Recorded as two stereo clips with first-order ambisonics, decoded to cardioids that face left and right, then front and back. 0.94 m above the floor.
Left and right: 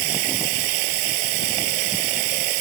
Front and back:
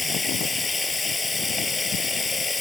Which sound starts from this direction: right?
Running water, at 0.0 s.